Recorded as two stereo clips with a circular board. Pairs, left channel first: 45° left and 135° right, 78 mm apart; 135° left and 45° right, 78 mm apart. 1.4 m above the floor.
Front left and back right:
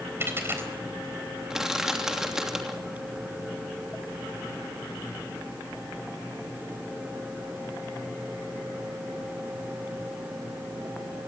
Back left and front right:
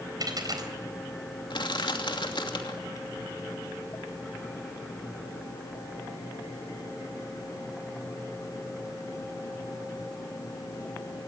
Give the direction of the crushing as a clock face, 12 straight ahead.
7 o'clock.